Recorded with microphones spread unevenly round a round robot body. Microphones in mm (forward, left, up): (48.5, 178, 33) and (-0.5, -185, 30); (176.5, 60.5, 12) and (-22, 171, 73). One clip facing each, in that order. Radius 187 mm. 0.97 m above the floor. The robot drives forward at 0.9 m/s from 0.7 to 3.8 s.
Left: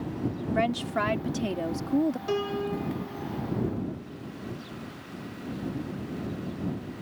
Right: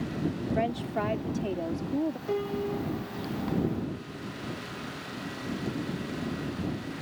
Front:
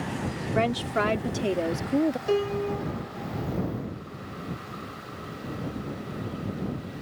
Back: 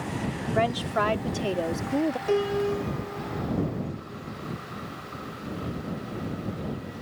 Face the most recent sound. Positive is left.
turn(degrees=165)